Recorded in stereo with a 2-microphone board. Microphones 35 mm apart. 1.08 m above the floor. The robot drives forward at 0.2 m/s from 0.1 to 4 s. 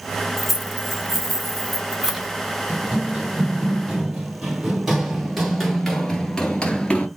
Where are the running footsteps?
25° right (ahead or behind), 2.5 m; by 7.1 s 35° left (ahead or behind), 1.3 m.